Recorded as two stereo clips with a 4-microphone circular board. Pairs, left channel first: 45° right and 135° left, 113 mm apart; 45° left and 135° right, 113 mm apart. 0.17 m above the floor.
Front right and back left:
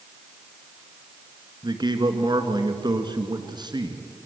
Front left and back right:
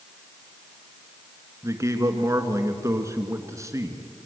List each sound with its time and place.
1.6 s a man speaking: 170° left, 2.5 m